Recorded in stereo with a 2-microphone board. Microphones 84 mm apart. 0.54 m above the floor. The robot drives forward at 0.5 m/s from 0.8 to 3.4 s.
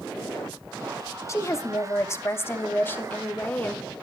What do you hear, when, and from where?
1.3 s a woman speaking: 35° left (ahead or behind), 0.7 m; by 3.8 s 20° left (ahead or behind), 1.2 m